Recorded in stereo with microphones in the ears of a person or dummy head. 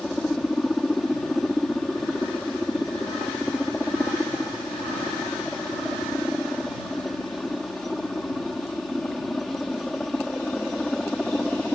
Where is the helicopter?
Centre (ahead or behind).